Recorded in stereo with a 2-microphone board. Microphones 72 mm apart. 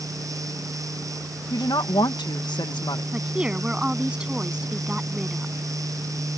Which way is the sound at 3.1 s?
15° right (ahead or behind).